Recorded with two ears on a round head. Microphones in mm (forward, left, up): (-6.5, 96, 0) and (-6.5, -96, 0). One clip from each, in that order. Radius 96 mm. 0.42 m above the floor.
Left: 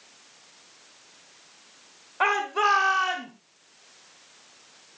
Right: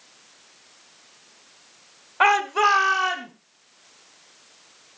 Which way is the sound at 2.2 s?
30° right (ahead or behind).